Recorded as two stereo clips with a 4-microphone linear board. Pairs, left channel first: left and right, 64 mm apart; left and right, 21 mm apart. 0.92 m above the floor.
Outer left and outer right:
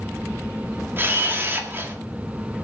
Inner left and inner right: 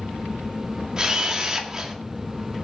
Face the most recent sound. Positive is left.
turn(degrees=-35)  # may be behind; listen again after turning